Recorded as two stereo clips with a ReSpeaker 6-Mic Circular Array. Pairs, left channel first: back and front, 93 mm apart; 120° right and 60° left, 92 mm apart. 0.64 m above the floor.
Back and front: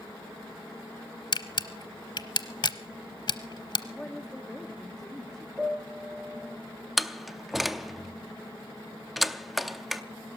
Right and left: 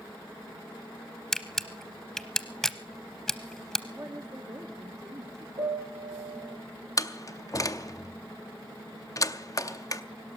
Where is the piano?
85° left, 5.5 m.